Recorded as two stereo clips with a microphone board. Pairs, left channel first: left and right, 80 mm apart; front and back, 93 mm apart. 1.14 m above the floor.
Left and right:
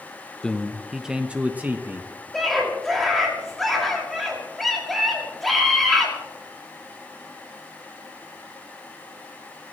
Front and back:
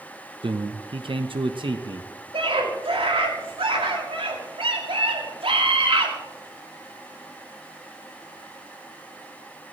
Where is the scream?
Straight behind, 6 m.